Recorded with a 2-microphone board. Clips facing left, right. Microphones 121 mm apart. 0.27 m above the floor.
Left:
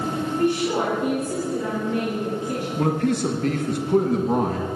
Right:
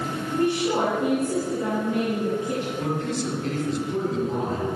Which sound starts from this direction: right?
A woman speaking, at 0.3 s.